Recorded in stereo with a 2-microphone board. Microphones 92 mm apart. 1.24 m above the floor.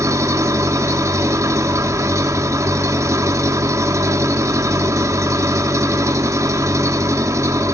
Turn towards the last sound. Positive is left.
turn(degrees=-30)  # may be behind; listen again after turning